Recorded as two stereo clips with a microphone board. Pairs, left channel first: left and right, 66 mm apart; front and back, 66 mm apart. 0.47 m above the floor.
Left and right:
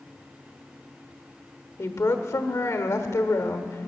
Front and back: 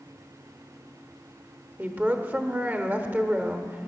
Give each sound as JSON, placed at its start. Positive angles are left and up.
{"t": 1.8, "sound": "a woman speaking", "azimuth_deg": 120, "distance_m": 1.1}